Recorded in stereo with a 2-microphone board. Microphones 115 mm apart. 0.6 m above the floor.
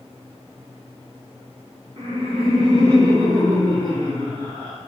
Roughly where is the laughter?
Right.